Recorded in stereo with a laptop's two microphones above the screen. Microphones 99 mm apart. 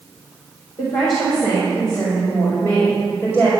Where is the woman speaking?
55° left (ahead or behind), 4 m; by 3.5 s 35° left (ahead or behind), 4.5 m.